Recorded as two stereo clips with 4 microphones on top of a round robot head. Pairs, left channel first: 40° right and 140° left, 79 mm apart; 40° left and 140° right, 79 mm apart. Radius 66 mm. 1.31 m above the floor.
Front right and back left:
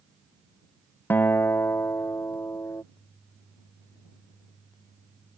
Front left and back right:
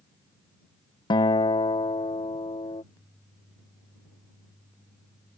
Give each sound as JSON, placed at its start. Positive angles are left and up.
{"t": 1.1, "sound": "a guitar", "azimuth_deg": 25}